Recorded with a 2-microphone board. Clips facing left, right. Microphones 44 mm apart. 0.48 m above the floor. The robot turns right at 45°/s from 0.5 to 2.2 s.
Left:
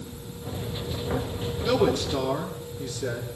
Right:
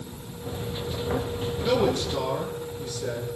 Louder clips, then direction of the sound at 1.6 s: Left 1 dB; 15° right (ahead or behind).